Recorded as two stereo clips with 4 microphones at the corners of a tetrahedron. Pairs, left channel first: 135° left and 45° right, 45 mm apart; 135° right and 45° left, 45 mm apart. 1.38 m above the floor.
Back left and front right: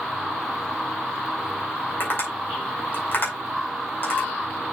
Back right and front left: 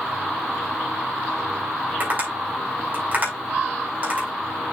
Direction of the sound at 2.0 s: 100° left.